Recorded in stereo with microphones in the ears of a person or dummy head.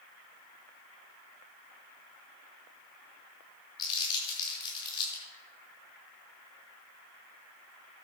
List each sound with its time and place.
3.8 s crumpling: 25° left (ahead or behind), 4.5 m